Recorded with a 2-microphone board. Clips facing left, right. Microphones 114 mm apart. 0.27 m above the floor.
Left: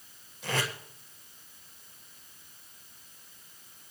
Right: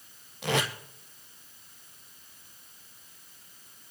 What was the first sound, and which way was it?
Tape being pulled, 75° right (ahead or behind).